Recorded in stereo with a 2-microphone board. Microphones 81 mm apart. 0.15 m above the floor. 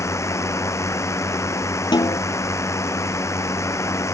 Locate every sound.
0.0 s a drone: 35° left (ahead or behind)
1.9 s a snare drum: 60° left (ahead or behind)